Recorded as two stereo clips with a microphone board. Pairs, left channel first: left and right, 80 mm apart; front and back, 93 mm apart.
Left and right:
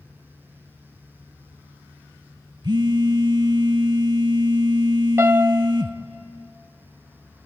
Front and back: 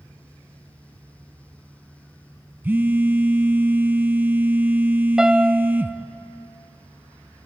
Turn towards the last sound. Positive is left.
turn(degrees=-105)